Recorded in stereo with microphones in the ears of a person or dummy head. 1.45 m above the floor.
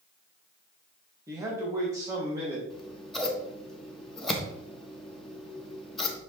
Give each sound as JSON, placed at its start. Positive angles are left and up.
{"t": 1.3, "sound": "a man speaking", "side_deg": -10, "distance_m": 2.0}
{"t": 2.7, "sound": "scissors", "side_deg": 0, "distance_m": 1.2}